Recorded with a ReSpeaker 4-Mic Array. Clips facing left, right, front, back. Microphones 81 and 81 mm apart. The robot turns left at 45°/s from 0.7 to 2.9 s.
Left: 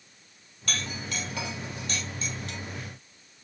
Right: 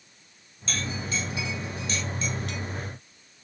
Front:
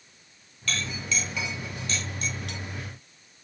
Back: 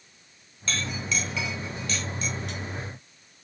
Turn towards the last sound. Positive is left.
turn(degrees=15)